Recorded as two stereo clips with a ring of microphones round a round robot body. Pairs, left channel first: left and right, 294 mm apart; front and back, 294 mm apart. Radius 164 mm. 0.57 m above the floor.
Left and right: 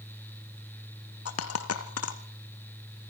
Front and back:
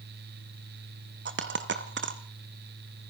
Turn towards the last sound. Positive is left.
turn(degrees=130)